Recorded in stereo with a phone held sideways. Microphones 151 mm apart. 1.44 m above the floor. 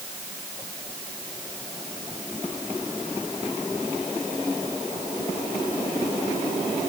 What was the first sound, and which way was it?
Only background noise.